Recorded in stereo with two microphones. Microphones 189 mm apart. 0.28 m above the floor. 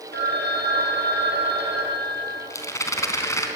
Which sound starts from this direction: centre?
A rattle, at 2.5 s.